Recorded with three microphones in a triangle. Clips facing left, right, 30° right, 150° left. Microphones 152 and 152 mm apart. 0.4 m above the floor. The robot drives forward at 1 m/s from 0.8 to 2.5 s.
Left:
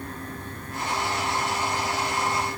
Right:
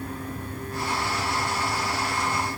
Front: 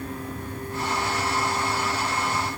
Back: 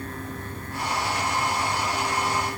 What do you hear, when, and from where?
Only background noise.